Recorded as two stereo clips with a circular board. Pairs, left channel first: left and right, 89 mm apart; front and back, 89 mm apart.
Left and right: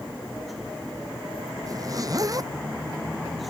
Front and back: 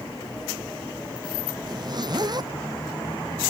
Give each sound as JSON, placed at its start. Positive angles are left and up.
{"t": 1.7, "sound": "a zipper", "azimuth_deg": -140}